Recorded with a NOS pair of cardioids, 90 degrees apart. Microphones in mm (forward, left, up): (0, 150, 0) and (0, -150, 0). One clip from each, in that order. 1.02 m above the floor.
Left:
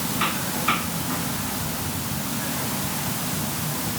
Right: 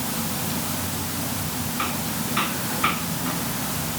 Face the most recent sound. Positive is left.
No sound to turn to.